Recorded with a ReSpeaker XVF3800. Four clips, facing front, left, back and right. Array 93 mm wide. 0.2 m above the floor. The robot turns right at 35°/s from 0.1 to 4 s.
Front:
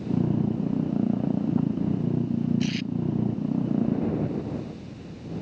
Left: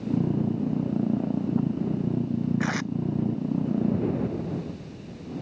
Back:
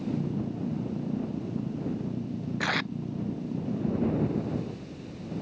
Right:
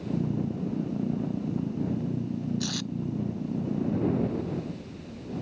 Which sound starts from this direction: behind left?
Tape being pulled, at 2.6 s.